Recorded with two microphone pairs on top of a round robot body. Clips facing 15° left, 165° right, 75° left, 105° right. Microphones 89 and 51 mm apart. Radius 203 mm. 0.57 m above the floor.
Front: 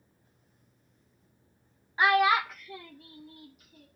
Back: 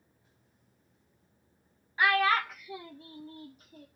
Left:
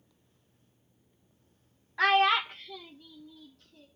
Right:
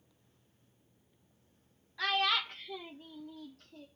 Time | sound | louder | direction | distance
2.0 | a child speaking | front 3 dB, left 8 dB | 75° left | 0.6 m